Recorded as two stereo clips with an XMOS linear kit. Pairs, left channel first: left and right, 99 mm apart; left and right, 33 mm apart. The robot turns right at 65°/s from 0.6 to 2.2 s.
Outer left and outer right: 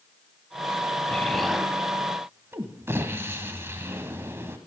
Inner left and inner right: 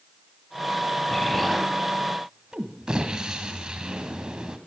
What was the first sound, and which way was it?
An explosion, 155° left.